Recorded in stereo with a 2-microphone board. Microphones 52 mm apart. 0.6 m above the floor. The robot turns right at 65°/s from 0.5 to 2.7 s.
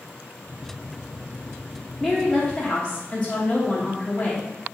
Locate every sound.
2.0 s a woman speaking: 5° left, 0.8 m; by 4.5 s 50° left, 0.8 m